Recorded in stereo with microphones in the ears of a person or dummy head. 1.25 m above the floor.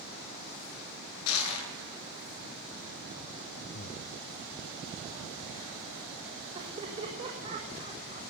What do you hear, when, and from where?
1.3 s crushing: 80° left, 9.5 m
3.7 s breathing: 40° left (ahead or behind), 1.1 m
6.5 s laughter: 25° right (ahead or behind), 6.5 m